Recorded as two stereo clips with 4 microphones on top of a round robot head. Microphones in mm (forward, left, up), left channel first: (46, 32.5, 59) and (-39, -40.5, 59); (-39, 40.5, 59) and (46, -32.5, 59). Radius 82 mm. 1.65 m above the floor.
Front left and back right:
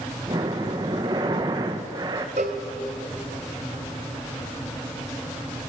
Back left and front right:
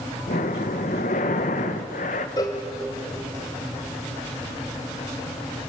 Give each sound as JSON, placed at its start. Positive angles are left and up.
{"t": 0.3, "sound": "breathing", "azimuth_deg": 165, "distance_m": 1.3}
{"t": 2.4, "sound": "a cowbell", "azimuth_deg": -165, "distance_m": 2.0}